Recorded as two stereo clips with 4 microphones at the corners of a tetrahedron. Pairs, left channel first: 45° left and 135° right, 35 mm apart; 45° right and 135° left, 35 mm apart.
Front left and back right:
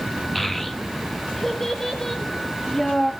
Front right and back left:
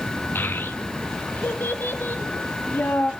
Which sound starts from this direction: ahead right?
A child speaking, at 0.3 s.